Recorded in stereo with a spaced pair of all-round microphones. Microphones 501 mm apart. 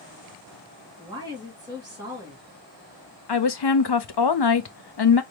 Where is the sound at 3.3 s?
55° left (ahead or behind), 0.6 m.